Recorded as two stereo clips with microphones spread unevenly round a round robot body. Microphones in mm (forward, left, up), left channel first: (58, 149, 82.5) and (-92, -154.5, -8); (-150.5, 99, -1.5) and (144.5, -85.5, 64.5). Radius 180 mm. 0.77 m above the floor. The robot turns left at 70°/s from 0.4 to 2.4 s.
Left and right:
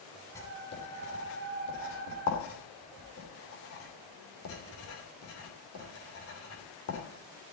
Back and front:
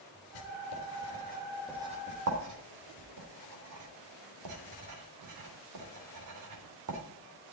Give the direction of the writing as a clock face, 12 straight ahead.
7 o'clock.